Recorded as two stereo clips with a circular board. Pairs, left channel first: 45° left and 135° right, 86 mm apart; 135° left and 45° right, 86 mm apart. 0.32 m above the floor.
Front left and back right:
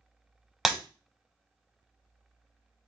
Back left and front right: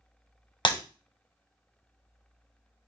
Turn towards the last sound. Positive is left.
turn(degrees=140)